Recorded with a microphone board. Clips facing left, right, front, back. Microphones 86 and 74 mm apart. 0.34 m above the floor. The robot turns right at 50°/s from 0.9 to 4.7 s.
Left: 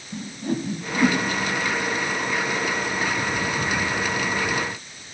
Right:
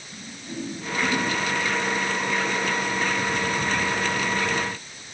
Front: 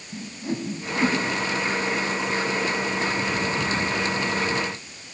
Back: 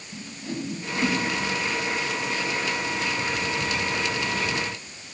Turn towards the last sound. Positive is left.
turn(degrees=-110)